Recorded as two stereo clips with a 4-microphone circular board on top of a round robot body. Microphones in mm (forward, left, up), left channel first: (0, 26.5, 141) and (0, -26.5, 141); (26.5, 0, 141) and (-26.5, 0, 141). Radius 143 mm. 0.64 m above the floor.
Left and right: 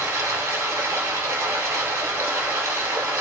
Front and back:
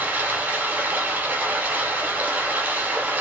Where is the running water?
125° right, 1.2 m.